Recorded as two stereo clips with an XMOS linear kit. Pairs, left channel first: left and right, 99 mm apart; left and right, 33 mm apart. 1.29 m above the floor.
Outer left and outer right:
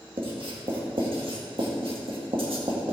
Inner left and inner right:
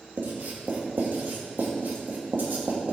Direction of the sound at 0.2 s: 65° right (ahead or behind).